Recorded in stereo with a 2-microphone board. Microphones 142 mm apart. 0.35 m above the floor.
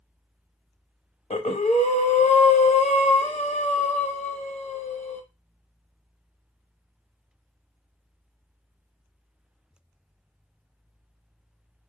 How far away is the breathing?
About 0.6 m.